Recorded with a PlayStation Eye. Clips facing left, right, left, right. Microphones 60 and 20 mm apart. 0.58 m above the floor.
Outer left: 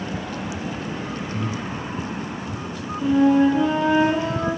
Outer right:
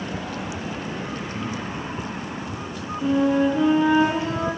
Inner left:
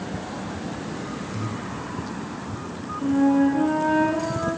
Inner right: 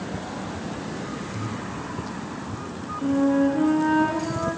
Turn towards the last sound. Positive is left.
turn(degrees=0)  # may be behind; listen again after turning